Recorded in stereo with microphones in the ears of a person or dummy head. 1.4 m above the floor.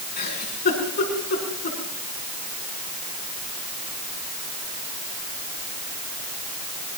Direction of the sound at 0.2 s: 50° left (ahead or behind).